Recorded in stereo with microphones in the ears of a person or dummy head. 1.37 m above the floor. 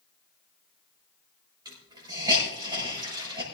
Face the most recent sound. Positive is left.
turn(degrees=-25)  # may be behind; listen again after turning